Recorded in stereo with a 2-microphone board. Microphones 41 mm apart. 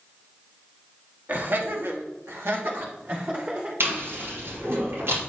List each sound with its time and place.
1.3 s laughter: 45° right (ahead or behind), 1.6 m; by 3.7 s 40° right (ahead or behind), 3 m
3.8 s chewing: 75° right (ahead or behind), 4 m